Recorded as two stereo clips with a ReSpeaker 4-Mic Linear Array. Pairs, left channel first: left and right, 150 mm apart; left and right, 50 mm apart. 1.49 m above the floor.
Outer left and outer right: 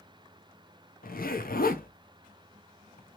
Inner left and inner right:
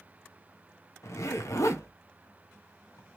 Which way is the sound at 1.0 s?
75° left (ahead or behind).